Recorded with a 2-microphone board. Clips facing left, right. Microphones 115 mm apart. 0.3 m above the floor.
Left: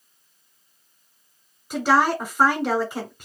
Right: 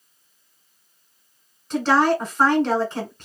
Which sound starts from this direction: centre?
A woman speaking, at 1.7 s.